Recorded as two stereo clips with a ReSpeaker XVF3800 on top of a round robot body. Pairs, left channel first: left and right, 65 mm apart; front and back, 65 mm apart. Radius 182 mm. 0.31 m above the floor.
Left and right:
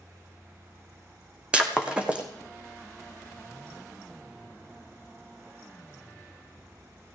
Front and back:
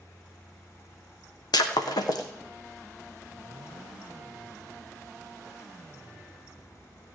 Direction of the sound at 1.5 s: 15° right.